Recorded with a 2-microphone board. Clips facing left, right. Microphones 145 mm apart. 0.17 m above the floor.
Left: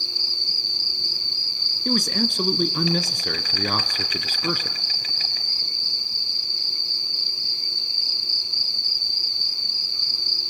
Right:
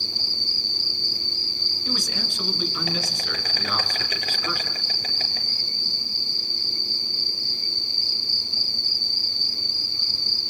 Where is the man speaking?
55° left (ahead or behind), 1.9 m.